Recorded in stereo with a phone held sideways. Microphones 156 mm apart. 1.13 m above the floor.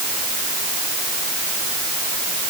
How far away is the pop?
I don't hear a pop.